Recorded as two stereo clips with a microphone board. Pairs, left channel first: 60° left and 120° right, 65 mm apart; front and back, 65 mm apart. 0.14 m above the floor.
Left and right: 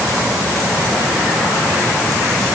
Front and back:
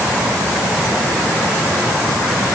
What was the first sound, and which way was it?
Only background noise.